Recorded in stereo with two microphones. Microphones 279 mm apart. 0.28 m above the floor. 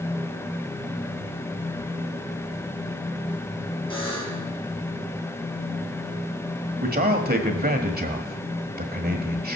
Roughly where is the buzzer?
Centre.